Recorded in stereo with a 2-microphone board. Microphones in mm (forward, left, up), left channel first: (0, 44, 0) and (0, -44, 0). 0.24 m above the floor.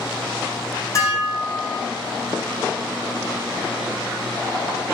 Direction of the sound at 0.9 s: 35° left (ahead or behind).